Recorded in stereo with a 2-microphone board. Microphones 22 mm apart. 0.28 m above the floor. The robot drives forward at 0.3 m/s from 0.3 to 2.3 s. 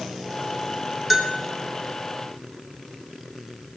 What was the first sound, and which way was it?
A bell, 10° right (ahead or behind).